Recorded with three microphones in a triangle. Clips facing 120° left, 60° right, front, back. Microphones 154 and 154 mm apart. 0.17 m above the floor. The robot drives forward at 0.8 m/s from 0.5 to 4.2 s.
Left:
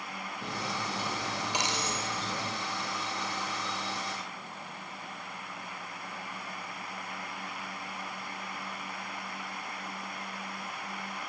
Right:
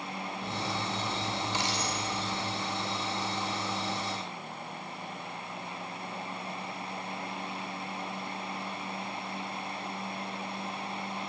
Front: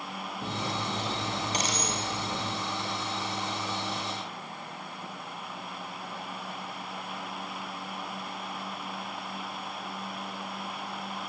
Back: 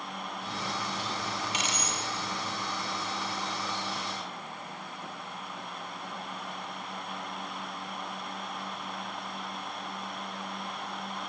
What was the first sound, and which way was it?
Cutlery clinking, 40° left.